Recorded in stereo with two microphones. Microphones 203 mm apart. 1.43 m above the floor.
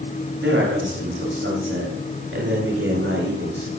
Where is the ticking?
I don't hear ticking.